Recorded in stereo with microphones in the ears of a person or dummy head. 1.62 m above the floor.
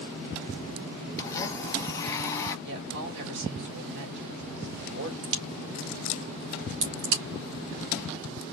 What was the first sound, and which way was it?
A blender, 15° left (ahead or behind).